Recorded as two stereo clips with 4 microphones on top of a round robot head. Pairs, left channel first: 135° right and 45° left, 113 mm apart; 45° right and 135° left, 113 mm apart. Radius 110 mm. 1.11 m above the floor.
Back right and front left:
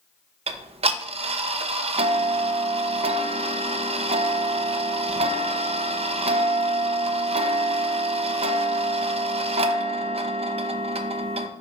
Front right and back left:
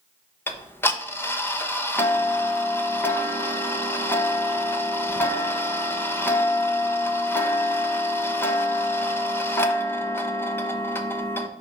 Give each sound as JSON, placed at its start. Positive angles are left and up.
{"t": 0.5, "sound": "ticking", "azimuth_deg": 20, "distance_m": 0.7}